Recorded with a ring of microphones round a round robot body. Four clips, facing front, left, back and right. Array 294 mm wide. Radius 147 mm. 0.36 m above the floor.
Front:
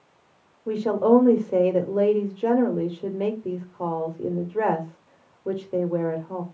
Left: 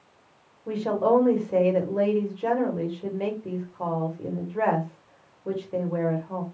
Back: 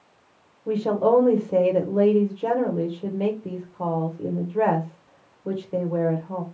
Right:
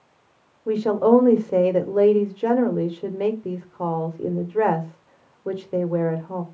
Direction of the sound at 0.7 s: 90° right.